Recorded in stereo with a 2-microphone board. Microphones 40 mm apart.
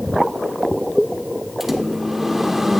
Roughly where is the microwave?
Centre.